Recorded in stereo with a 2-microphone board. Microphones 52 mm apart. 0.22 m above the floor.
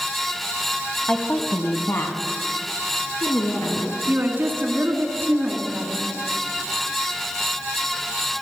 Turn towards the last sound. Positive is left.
turn(degrees=-45)  # may be behind; listen again after turning